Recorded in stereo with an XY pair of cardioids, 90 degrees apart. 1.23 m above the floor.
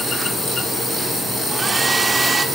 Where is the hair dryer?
30° right, 2.5 m.